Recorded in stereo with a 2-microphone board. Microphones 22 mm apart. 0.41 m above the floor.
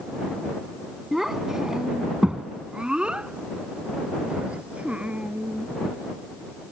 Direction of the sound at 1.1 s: 15° right (ahead or behind).